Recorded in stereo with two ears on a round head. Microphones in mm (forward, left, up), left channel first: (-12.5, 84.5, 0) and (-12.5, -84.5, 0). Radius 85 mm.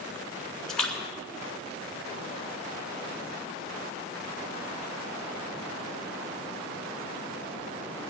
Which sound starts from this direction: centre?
A splash, at 0.7 s.